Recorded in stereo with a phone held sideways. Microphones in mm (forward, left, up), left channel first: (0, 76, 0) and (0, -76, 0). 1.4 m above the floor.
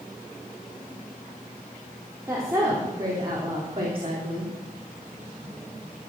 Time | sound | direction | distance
2.3 | a woman speaking | 20° right (ahead or behind) | 3.5 m